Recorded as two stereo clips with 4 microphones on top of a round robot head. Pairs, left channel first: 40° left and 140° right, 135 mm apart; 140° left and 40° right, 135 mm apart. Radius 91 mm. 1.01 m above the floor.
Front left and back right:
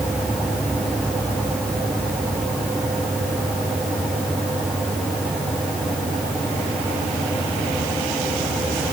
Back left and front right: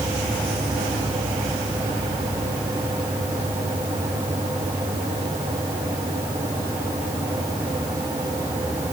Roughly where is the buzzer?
No buzzer in this recording.